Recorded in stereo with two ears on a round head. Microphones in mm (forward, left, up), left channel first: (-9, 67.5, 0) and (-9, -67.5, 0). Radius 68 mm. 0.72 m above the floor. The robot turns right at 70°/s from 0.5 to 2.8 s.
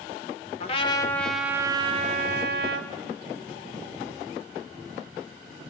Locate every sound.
0.6 s a trumpet: 130° left, 1.8 m; by 2.9 s 75° right, 1.8 m